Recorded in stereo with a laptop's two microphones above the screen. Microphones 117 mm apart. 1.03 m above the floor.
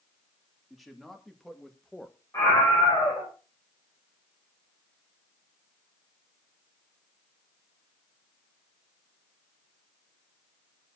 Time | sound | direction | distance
0.7 | a man speaking | centre (ahead or behind) | 2.5 m
2.3 | a scream | 25° left (ahead or behind) | 5.5 m